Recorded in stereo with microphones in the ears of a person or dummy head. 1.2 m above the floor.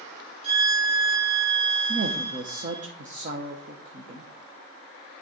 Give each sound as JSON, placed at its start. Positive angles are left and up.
{"t": 0.4, "sound": "a violin", "side_deg": -30, "distance_m": 1.1}
{"t": 1.9, "sound": "a woman speaking", "side_deg": -35, "distance_m": 0.8}